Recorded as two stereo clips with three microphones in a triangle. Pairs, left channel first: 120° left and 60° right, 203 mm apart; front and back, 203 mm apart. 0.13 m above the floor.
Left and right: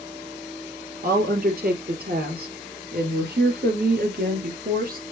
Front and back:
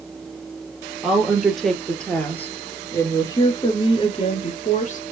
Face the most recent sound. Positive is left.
turn(degrees=-35)